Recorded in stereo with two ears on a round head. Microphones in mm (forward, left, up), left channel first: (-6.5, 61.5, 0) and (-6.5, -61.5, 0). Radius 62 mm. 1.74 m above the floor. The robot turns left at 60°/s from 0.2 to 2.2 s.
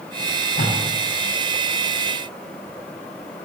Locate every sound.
0.2 s tape being pulled: 80° left, 9.5 m; by 0.8 s 45° left (ahead or behind), 9.5 m